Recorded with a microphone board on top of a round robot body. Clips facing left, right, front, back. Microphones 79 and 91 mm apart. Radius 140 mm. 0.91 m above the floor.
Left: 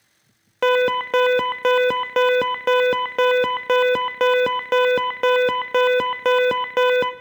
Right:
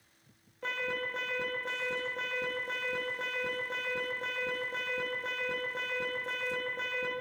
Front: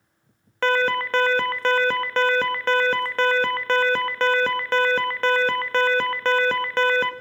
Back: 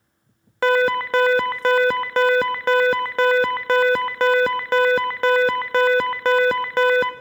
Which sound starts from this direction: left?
An alarm, at 0.6 s.